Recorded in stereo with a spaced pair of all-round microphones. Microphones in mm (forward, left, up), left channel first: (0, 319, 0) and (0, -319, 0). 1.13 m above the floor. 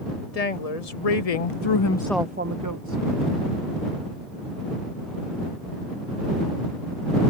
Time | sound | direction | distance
0.3 | a woman speaking | 70° left (ahead or behind) | ?